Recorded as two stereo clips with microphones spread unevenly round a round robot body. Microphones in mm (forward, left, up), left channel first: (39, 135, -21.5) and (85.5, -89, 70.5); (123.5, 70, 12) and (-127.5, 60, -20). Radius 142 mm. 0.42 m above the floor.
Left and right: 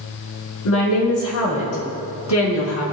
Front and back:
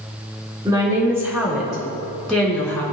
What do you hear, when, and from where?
0.7 s a woman speaking: 105° left, 4 m; by 2.8 s 85° left, 4 m